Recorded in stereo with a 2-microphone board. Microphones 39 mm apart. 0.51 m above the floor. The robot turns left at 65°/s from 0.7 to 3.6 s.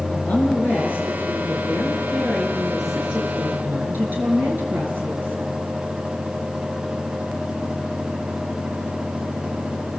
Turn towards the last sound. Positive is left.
turn(degrees=-60)